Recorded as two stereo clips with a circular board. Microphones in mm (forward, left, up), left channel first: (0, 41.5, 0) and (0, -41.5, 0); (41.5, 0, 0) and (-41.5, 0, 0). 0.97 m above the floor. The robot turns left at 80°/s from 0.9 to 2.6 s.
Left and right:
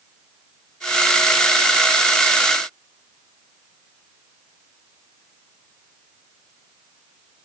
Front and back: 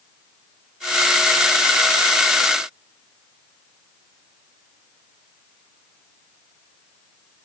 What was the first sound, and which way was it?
Only background noise.